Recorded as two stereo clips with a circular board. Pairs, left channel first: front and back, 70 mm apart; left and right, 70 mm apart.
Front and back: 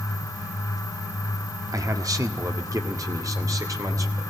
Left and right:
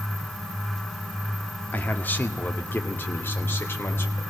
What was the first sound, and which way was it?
A man speaking, 155° left.